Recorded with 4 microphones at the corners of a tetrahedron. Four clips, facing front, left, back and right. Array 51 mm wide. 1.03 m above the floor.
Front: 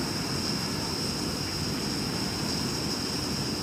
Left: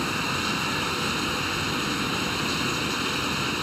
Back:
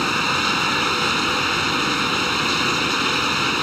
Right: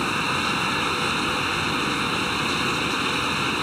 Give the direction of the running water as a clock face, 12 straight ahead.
6 o'clock.